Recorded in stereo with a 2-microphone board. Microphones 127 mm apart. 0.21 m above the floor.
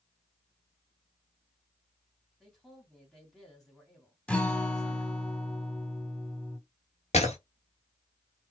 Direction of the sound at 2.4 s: 5° left (ahead or behind).